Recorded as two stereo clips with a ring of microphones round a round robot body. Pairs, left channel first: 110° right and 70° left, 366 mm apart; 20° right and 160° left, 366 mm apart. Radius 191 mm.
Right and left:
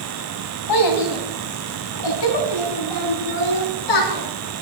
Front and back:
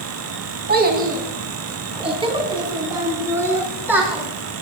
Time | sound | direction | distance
0.7 | a child speaking | 140° right | 2.5 m